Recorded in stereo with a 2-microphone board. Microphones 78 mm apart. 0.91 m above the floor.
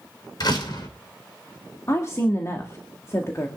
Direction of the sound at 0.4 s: 60° left (ahead or behind).